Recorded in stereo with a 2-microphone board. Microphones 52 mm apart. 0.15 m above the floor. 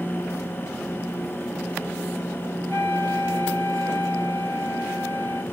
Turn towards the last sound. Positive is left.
turn(degrees=45)  # may be behind; listen again after turning